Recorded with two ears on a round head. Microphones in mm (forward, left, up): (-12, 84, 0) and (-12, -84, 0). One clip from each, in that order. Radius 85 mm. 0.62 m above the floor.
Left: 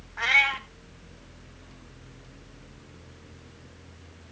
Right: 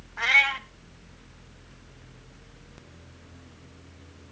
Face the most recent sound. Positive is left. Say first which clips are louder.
# right 1 dB
turn(degrees=-5)  # may be behind; listen again after turning